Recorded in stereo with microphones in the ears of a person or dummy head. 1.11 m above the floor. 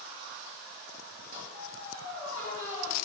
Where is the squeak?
50° right (ahead or behind), 3 m.